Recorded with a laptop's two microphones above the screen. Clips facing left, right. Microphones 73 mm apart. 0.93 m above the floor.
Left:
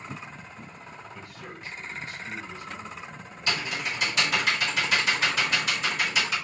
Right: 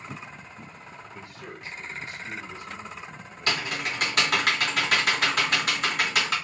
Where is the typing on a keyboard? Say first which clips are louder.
Right 1 dB; 60° right (ahead or behind), 1.6 m.